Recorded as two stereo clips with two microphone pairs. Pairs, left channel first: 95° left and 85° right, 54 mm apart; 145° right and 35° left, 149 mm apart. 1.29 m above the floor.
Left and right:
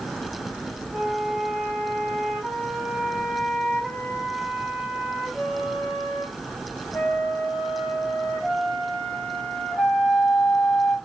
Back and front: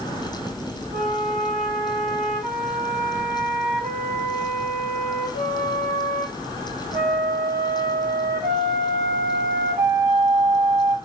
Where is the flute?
20° left, 2 m.